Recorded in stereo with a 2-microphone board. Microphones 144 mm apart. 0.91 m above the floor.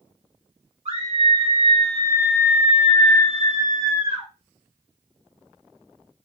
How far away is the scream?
About 1.5 m.